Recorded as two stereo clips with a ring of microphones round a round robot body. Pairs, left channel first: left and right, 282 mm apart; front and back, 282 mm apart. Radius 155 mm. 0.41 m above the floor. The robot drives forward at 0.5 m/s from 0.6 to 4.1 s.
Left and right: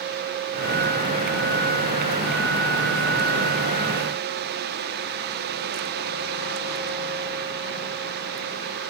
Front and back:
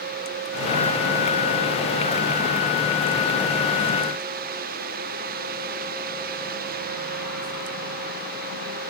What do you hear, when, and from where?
Only background noise.